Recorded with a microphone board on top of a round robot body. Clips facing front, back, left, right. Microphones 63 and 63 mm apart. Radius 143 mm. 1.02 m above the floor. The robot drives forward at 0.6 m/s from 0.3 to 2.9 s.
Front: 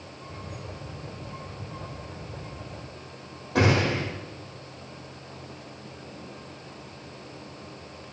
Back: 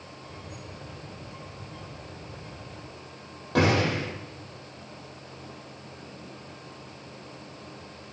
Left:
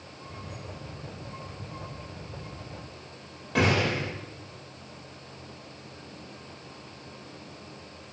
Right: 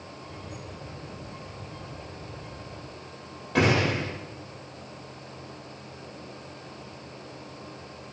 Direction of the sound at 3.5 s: Straight behind.